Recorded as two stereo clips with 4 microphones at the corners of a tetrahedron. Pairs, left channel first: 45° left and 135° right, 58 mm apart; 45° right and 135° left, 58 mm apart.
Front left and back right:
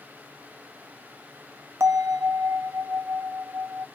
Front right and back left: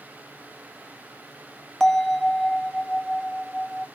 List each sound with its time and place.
1.8 s a bell: 125° right, 0.6 m